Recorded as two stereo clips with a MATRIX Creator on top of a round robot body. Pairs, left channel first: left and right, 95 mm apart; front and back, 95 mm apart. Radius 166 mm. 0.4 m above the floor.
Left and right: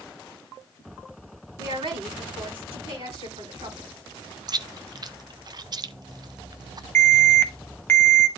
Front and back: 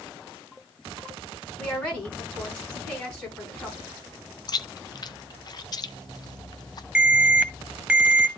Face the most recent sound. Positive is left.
turn(degrees=125)